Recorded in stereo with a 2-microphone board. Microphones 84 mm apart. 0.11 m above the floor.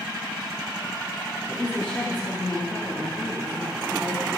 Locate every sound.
1.5 s a woman speaking: 25° left (ahead or behind), 8.5 m; by 4.4 s 30° left (ahead or behind), 9.5 m